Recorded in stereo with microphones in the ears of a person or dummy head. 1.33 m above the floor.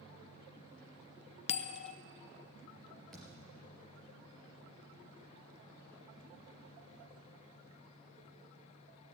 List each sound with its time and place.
1.5 s a bell: 40° left (ahead or behind), 0.6 m
3.1 s a thud: 5° right (ahead or behind), 3.5 m